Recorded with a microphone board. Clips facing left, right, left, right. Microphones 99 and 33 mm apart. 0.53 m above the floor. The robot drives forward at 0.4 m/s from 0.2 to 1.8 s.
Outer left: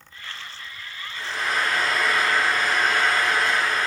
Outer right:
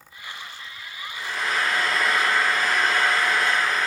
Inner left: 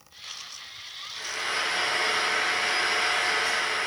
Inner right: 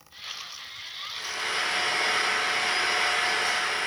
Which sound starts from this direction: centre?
Frying, at 1.1 s.